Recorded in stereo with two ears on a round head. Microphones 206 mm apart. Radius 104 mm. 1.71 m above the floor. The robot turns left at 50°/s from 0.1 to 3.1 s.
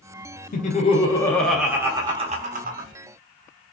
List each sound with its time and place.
0.5 s laughter: 50° left, 0.6 m; by 2.9 s 65° right, 0.6 m